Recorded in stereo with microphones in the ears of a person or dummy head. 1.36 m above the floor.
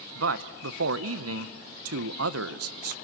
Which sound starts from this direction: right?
A man speaking, at 0.1 s.